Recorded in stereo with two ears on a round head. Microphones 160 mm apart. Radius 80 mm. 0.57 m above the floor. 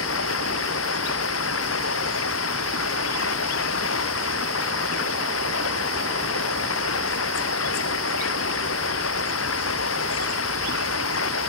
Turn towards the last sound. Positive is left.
turn(degrees=85)